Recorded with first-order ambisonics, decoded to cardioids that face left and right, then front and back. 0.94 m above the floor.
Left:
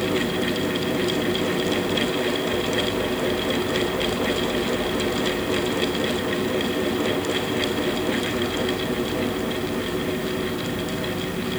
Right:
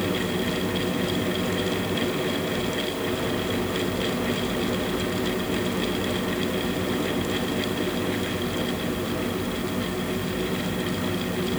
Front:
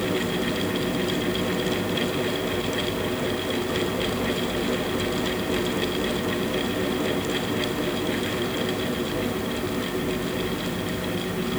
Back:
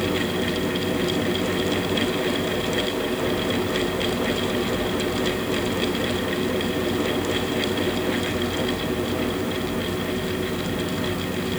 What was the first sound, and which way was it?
Only background noise.